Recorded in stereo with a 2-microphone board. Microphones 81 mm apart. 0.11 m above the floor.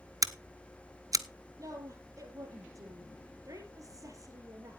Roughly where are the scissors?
Right.